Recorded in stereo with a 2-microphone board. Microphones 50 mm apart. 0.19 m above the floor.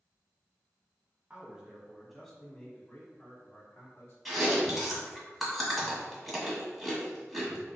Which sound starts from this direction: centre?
Chewing, at 4.2 s.